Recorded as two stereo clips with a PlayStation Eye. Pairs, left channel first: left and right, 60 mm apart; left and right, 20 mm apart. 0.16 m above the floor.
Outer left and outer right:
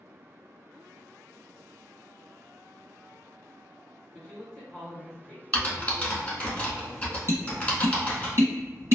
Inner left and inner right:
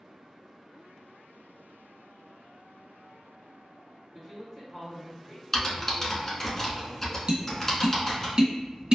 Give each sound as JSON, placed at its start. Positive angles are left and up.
{"t": 4.1, "sound": "a man speaking", "side_deg": 15, "distance_m": 1.2}
{"t": 5.5, "sound": "typing on a keyboard", "side_deg": 25, "distance_m": 1.0}
{"t": 7.3, "sound": "tapping", "side_deg": -45, "distance_m": 1.6}